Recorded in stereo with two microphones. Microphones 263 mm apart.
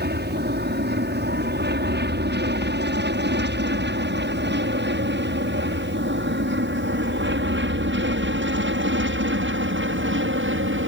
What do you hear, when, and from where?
0.0 s an aircraft: 40° right (ahead or behind); by 10.9 s 50° right (ahead or behind)